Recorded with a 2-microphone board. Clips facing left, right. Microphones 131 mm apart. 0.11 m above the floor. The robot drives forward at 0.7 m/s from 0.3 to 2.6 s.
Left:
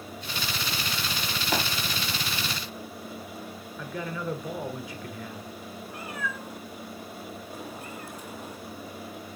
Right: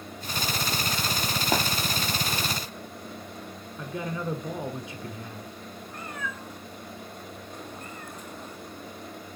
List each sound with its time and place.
1.5 s tapping: 35° right (ahead or behind), 2 m
3.8 s a man speaking: 25° right (ahead or behind), 1.3 m
5.9 s a cat meowing: 10° left (ahead or behind), 2 m